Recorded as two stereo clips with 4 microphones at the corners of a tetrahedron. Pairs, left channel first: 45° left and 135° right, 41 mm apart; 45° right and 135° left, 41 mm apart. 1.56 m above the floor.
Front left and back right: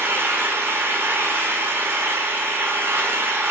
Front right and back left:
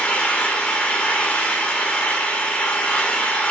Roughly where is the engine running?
Right.